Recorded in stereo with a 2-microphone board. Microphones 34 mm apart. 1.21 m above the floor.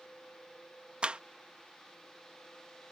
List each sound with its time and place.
1.0 s a clap: 35° right (ahead or behind)